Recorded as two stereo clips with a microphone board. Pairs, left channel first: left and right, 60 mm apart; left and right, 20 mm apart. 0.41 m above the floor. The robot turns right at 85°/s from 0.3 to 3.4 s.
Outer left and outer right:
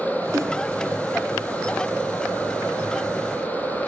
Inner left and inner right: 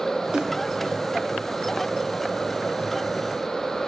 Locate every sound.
0.3 s a snare drum: 50° right (ahead or behind), 4 m; by 0.5 s 65° right (ahead or behind), 4 m